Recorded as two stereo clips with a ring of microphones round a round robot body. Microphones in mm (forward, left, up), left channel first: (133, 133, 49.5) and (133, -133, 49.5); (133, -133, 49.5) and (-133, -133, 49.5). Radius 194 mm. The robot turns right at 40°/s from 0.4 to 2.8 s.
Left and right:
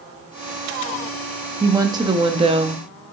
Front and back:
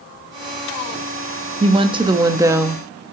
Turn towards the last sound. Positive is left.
turn(degrees=-105)